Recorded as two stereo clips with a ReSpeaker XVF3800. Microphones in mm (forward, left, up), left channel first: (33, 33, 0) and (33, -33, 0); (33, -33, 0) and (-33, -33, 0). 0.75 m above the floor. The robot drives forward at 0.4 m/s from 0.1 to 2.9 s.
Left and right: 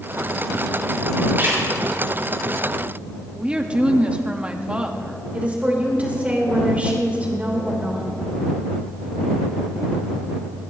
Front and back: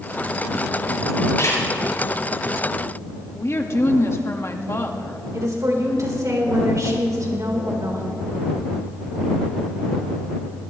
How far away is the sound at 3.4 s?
About 1.3 m.